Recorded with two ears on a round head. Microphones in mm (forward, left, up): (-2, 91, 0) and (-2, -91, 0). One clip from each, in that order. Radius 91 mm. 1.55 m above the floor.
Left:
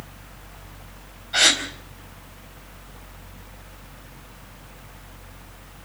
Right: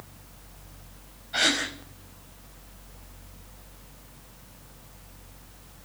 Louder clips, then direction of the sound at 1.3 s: Left 6 dB; 30° left (ahead or behind).